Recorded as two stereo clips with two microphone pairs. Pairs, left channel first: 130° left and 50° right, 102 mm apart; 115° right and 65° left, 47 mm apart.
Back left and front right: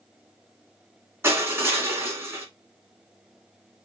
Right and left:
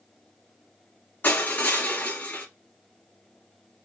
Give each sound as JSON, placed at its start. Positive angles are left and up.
{"t": 1.2, "sound": "crushing", "azimuth_deg": -105, "distance_m": 2.0}